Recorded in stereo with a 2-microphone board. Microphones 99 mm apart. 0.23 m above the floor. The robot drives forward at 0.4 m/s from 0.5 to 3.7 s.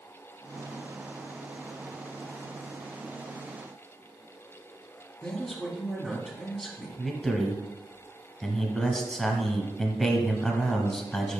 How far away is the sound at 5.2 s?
About 1.7 m.